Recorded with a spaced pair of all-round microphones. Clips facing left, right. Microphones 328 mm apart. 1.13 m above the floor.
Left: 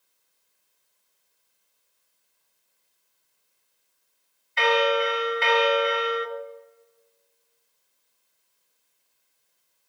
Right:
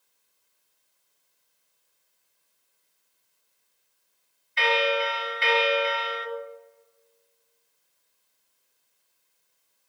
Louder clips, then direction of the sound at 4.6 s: Left 4 dB; 60° left (ahead or behind).